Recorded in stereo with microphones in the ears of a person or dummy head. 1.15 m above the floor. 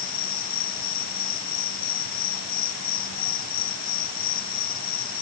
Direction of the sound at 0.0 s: 50° left (ahead or behind).